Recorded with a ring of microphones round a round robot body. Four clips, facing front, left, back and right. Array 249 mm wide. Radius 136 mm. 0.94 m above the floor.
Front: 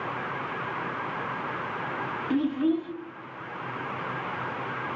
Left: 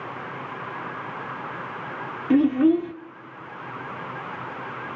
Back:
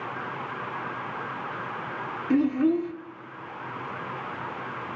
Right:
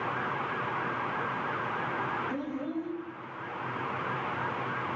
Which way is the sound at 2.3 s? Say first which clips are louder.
Left 16 dB, back 3 dB; 105° left.